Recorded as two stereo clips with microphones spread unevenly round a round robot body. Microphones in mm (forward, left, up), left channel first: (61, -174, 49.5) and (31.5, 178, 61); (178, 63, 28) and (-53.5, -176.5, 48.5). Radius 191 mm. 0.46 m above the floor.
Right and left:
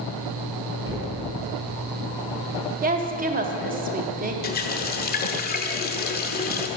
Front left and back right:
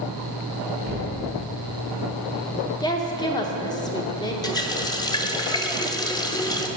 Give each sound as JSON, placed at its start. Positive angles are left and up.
{"t": 0.8, "sound": "knocking", "azimuth_deg": 175, "distance_m": 1.6}
{"t": 2.8, "sound": "a woman speaking", "azimuth_deg": 85, "distance_m": 0.8}
{"t": 4.4, "sound": "a running tap", "azimuth_deg": -30, "distance_m": 0.9}